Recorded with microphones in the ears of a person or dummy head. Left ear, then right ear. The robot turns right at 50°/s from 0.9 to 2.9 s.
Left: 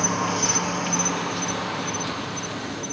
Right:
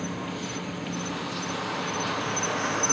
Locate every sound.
0.0 s an insect: 135° left; by 2.9 s 125° right